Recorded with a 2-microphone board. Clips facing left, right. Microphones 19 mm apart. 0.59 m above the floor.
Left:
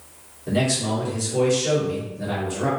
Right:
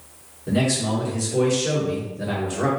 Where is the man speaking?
5° left (ahead or behind), 1.8 m; by 2.7 s 30° right (ahead or behind), 1.7 m.